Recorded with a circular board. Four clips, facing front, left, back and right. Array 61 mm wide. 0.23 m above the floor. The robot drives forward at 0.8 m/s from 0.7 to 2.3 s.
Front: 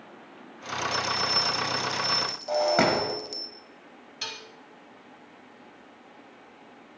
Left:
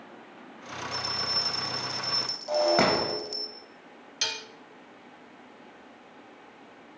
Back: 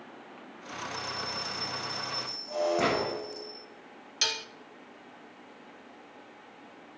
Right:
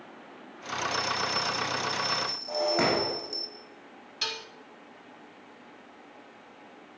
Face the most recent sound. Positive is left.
turn(degrees=150)